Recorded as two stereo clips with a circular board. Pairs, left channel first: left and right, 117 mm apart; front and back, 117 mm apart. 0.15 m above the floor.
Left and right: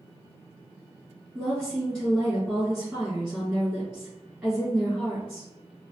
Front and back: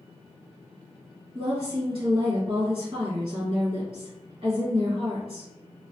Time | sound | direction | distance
1.4 | a woman speaking | 155° right | 2.0 m